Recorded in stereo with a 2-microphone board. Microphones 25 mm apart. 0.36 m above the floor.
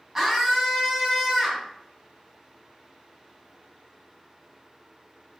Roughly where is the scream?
Centre.